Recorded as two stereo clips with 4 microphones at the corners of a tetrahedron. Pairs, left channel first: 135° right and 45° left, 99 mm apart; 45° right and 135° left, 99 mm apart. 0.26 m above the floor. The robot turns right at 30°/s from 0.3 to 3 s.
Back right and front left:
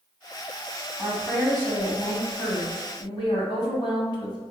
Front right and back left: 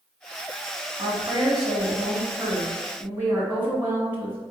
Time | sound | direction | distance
1.0 | a woman speaking | 140° left | 1.5 m